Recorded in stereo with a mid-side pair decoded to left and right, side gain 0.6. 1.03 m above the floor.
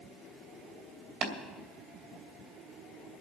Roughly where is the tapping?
Ahead right.